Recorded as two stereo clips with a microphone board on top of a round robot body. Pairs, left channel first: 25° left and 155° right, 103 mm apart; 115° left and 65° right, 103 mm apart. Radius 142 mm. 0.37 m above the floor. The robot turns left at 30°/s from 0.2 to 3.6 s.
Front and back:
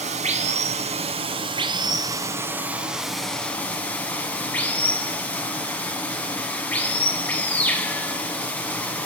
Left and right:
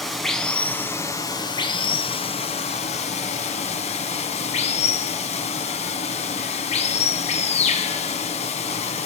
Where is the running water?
160° right, 0.9 m; by 9.1 s 100° left, 0.9 m.